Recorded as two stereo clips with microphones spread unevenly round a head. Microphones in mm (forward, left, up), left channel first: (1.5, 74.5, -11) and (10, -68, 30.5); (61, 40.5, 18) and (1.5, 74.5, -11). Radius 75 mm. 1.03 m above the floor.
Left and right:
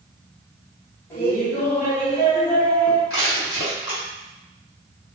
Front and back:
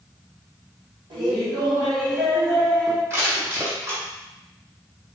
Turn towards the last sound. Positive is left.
turn(degrees=90)